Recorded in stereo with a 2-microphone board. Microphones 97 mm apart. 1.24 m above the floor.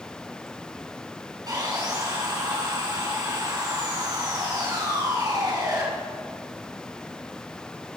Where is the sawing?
45° right (ahead or behind), 5 m.